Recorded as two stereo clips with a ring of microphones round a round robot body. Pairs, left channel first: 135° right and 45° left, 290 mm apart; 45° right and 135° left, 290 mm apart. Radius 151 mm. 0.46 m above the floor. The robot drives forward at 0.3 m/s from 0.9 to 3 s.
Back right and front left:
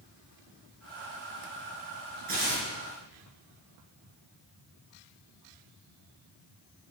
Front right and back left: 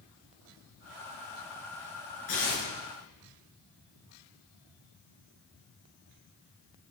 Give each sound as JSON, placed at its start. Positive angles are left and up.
{"t": 2.3, "sound": "tearing paper", "azimuth_deg": -20, "distance_m": 4.5}